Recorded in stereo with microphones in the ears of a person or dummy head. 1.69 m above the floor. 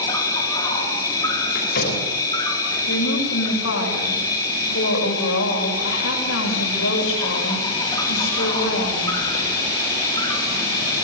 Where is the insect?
20° left (ahead or behind), 4.5 m.